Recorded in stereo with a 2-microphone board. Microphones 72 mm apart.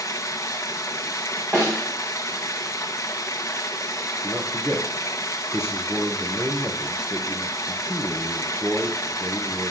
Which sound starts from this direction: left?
Running water, at 0.0 s.